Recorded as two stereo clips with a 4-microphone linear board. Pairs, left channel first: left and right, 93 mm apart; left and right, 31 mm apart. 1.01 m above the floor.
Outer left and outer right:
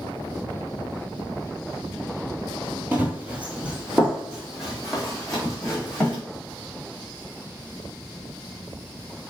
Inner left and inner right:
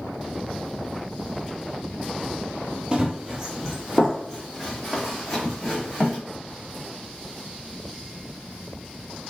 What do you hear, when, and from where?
2.9 s running footsteps: 20° right (ahead or behind), 1.0 m; by 6.2 s 5° left (ahead or behind), 2.5 m